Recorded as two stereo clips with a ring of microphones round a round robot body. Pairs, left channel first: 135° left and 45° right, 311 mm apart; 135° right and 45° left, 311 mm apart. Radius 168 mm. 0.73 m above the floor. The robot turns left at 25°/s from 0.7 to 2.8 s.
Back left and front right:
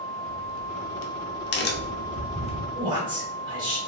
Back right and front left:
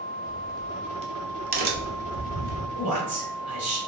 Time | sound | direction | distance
0.2 | a crack | 115° left | 0.6 m
2.8 | a man speaking | 30° left | 1.9 m